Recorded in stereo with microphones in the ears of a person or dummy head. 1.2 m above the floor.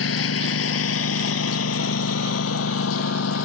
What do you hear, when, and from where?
0.0 s a lawn mower: 75° left (ahead or behind); by 3.5 s 80° left